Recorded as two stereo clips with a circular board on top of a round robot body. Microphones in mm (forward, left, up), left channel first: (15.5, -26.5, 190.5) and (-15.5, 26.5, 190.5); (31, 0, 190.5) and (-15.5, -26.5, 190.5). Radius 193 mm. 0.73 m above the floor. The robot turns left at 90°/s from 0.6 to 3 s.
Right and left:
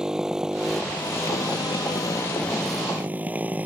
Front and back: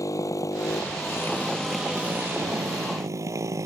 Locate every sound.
0.0 s a motorcycle: 40° left; by 3.7 s 175° right